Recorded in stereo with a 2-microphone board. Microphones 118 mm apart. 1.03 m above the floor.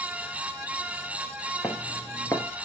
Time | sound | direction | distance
1.6 | footsteps | 25° left (ahead or behind) | 1.0 m